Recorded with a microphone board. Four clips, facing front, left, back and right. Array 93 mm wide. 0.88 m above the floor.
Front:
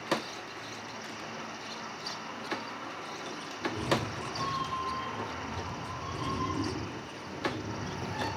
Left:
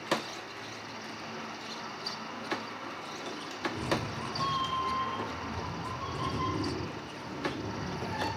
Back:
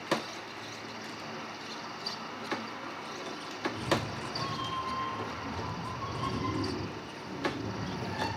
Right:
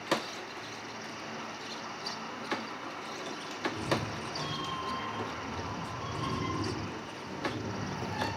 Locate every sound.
3.6 s a cat meowing: 10° left, 0.5 m; by 8.3 s 120° left, 2.5 m